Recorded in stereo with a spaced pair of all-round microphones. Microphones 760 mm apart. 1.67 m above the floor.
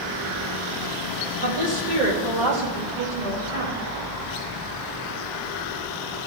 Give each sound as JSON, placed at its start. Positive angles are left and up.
{"t": 1.4, "sound": "a woman speaking", "side_deg": -80, "distance_m": 1.7}